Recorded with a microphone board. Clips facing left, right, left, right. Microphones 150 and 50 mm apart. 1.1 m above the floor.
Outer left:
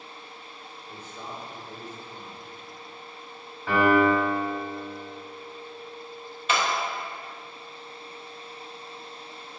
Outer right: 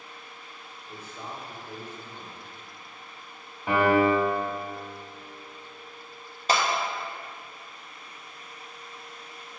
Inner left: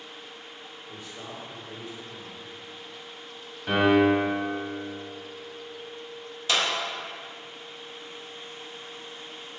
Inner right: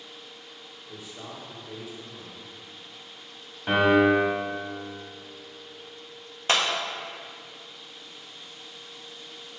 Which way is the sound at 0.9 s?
Centre (ahead or behind).